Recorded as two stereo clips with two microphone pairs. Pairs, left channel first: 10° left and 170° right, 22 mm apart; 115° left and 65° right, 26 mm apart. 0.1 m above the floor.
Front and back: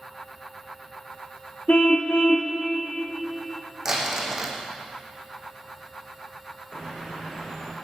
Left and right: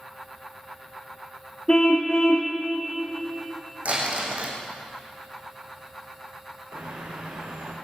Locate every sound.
1.7 s a car horn: 50° left, 4 m
3.9 s crumpling: 95° right, 5.5 m
6.7 s a bird: 60° right, 5.5 m